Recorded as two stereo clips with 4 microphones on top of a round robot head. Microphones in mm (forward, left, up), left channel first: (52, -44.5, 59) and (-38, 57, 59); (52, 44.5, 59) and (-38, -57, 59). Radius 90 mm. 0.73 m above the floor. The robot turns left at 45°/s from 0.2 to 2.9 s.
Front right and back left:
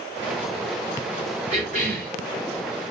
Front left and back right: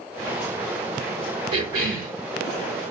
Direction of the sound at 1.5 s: 175° left.